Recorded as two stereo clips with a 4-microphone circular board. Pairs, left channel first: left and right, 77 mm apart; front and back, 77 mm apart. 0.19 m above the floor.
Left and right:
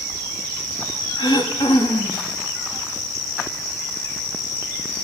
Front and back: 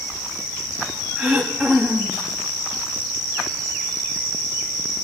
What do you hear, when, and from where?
1.2 s throat clearing: 90° left, 6 m